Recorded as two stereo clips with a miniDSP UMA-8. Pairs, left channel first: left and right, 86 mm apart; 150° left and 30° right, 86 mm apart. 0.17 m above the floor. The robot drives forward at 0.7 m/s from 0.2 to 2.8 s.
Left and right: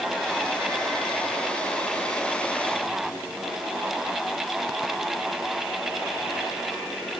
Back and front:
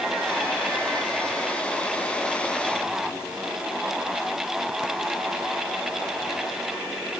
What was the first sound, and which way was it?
Only background noise.